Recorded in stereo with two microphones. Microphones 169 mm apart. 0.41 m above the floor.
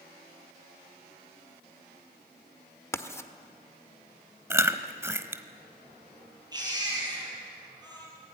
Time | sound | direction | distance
2.9 | writing | 15° left (ahead or behind) | 1.2 m
4.5 | chewing | 15° right (ahead or behind) | 1.1 m
6.5 | a baby crying | 25° right (ahead or behind) | 8.5 m